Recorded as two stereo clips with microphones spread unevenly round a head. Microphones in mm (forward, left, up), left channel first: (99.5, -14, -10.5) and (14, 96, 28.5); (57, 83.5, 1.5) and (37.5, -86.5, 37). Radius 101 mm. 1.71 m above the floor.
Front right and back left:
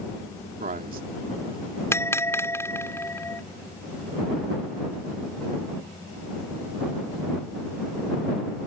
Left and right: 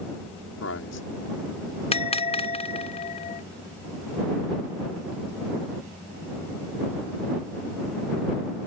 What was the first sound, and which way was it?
A man speaking, 110° left.